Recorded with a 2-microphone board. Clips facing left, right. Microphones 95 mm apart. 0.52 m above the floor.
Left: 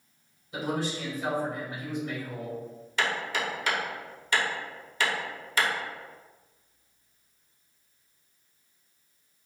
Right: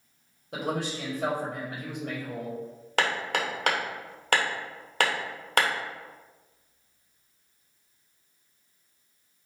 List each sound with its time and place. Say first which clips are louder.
0.5 s a man speaking: even; 65° right (ahead or behind), 2 m
3.0 s hammering: right 2 dB; 65° right (ahead or behind), 1.0 m